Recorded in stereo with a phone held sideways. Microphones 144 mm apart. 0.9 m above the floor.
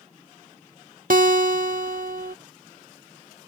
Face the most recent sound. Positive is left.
turn(degrees=-70)  # may be behind; listen again after turning